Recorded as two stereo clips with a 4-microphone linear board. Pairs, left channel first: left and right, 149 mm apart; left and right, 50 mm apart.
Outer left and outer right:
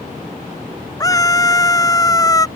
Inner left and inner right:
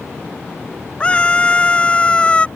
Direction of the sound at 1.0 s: 25° left (ahead or behind).